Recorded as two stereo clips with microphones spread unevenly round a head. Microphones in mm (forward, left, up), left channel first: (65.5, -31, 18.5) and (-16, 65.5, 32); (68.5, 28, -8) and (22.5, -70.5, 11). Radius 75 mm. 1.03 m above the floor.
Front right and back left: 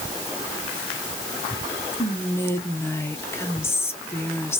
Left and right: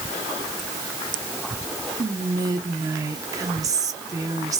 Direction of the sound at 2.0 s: 75° right.